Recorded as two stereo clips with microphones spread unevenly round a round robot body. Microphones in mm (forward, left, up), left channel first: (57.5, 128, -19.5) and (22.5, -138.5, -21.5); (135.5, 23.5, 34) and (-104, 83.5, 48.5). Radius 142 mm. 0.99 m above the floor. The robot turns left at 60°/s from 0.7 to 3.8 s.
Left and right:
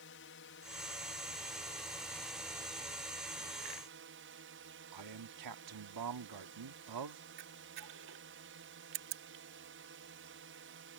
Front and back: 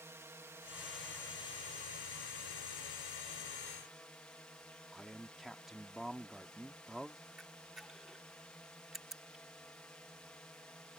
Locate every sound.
0.0 s a drone: 90° left; by 11.0 s 95° right
4.9 s a man speaking: 105° right
7.4 s a camera shutter: 105° right